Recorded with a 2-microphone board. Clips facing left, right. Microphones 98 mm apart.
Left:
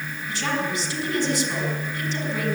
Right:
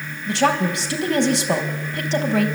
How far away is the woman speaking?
About 4 m.